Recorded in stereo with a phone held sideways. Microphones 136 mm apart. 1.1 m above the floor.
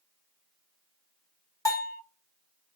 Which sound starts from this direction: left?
A bell, at 1.6 s.